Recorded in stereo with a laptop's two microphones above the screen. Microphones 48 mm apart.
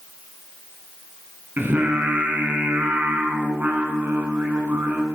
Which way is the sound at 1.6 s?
40° right (ahead or behind).